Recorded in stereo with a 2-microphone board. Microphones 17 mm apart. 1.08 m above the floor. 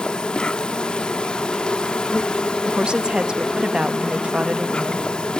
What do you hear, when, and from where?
0.0 s an insect: 65° left (ahead or behind), 1.0 m
2.6 s a woman speaking: 60° right (ahead or behind), 1.2 m